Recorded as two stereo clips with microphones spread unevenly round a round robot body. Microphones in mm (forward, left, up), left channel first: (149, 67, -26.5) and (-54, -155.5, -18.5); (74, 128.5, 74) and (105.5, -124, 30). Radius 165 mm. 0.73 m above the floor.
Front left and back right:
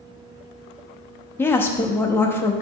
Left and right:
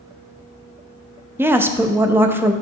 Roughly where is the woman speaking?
Ahead right.